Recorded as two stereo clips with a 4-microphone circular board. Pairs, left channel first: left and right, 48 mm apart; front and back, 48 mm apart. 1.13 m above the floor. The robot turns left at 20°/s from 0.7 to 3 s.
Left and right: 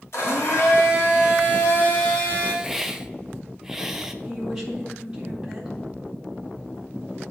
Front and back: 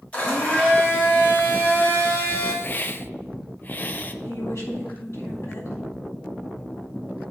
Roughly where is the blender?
Ahead left.